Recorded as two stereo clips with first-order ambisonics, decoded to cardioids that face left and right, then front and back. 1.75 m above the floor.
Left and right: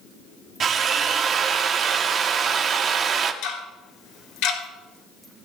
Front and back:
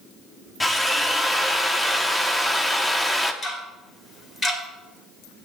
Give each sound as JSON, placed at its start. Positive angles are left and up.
{"t": 0.6, "sound": "a drill", "azimuth_deg": -75, "distance_m": 0.8}
{"t": 3.4, "sound": "ticking", "azimuth_deg": 75, "distance_m": 2.5}